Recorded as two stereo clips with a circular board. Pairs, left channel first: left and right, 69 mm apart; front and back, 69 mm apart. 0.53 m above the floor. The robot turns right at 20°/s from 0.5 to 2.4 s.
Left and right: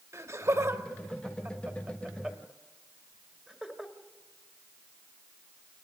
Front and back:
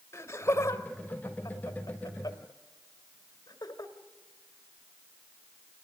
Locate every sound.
0.1 s laughter: 50° right, 2 m; by 3.9 s 10° right, 2 m